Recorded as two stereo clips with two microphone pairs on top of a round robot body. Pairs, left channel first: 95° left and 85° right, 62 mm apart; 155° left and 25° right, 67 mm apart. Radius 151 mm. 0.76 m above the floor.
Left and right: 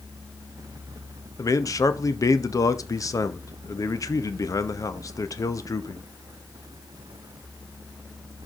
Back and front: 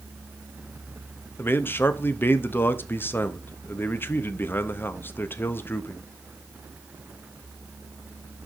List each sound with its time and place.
1.4 s a man speaking: 95° left, 1.1 m